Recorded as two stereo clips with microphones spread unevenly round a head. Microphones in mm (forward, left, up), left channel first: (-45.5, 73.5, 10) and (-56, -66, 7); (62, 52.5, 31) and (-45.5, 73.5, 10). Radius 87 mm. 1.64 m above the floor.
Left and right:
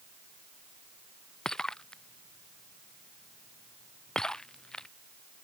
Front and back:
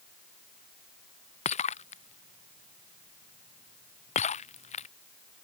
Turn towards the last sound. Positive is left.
turn(degrees=0)